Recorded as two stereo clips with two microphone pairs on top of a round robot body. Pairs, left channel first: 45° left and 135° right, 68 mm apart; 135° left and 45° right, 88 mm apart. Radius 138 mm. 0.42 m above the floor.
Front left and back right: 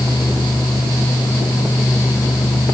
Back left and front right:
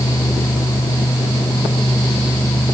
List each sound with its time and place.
Only background noise.